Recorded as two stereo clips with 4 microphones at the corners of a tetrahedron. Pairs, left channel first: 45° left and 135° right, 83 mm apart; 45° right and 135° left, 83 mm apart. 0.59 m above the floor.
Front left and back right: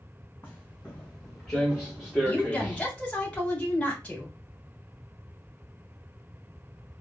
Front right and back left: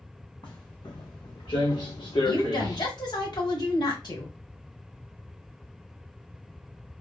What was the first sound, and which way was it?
Footsteps, 20° right.